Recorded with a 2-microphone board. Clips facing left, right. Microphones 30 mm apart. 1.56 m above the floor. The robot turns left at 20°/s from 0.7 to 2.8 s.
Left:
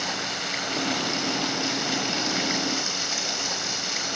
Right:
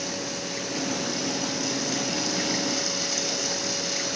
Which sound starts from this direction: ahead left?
Running water, at 0.0 s.